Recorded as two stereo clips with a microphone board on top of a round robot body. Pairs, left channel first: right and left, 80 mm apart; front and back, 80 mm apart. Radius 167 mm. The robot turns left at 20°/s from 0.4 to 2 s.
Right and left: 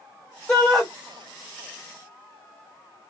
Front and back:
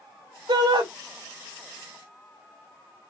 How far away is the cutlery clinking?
No cutlery clinking in this recording.